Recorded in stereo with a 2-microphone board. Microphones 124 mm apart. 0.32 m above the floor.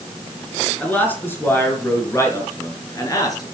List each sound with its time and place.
0.8 s a man speaking: 15° left (ahead or behind), 5.5 m; by 3.5 s 30° left (ahead or behind), 6 m